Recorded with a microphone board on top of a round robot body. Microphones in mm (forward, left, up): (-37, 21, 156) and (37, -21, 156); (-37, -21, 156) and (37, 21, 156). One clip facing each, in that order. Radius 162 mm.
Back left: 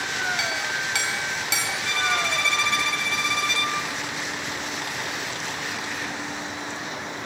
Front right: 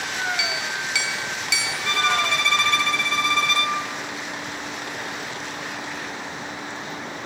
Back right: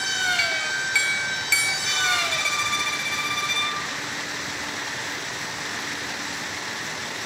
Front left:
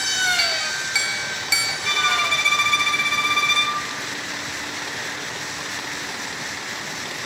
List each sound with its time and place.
0.4 s a clink: 105° left, 3.5 m
1.9 s a violin: 5° left, 3.5 m